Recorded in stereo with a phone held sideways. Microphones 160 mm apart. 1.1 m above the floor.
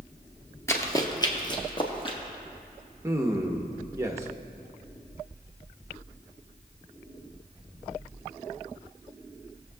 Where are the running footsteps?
15° left (ahead or behind), 1.1 m; by 2.2 s 35° left (ahead or behind), 1.9 m.